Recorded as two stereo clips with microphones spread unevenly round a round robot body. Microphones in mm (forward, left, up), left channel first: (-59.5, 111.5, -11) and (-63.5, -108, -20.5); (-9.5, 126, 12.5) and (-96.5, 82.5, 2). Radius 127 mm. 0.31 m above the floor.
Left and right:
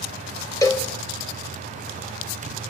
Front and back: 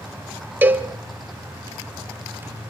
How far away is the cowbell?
About 1.4 m.